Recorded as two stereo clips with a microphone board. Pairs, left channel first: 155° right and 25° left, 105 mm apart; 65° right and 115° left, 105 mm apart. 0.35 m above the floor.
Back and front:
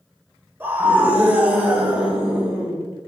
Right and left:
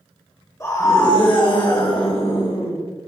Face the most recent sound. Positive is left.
turn(degrees=-60)